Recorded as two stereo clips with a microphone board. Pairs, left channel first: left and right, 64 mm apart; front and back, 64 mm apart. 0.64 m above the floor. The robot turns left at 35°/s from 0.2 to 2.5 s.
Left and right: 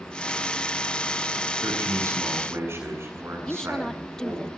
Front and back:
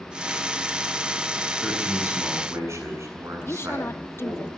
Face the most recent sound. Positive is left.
turn(degrees=15)